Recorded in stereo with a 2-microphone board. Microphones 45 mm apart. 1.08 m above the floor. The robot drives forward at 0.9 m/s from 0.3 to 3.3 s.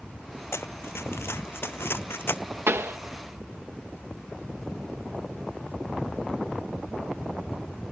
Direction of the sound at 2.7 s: 65° right (ahead or behind).